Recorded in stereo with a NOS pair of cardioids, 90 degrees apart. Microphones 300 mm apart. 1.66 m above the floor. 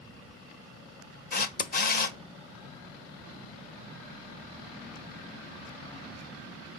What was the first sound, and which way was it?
A camera shutter, 30° left.